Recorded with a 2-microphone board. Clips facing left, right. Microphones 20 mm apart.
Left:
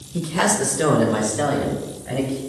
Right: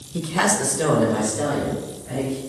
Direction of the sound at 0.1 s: 20° right (ahead or behind).